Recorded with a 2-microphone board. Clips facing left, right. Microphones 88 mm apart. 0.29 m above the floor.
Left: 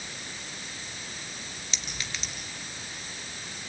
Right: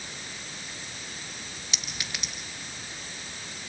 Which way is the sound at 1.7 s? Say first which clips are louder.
Even; 15° right (ahead or behind).